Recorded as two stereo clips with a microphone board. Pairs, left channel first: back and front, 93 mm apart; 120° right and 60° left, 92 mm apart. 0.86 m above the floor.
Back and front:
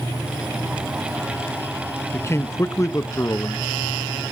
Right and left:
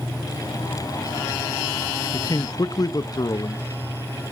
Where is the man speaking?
135° right, 0.8 m.